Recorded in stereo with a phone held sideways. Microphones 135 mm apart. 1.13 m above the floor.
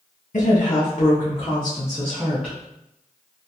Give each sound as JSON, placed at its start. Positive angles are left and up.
{"t": 0.3, "sound": "a woman speaking", "side_deg": 65, "distance_m": 1.2}